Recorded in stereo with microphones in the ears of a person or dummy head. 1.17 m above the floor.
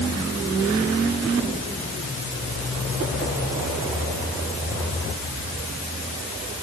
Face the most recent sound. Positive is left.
No sound to turn to.